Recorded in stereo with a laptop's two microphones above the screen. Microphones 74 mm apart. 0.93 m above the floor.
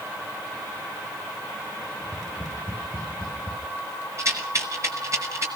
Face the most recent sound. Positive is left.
turn(degrees=-40)  # may be behind; listen again after turning